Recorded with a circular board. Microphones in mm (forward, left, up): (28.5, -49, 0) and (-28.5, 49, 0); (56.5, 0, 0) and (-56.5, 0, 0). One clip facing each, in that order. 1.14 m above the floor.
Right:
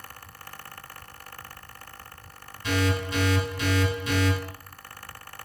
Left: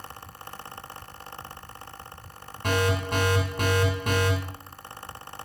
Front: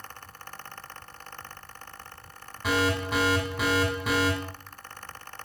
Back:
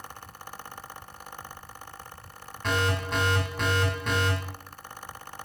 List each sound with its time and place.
2.6 s an alarm: 85° left, 7 m